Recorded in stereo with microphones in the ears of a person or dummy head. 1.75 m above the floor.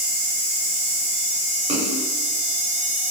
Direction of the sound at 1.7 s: 35° right (ahead or behind).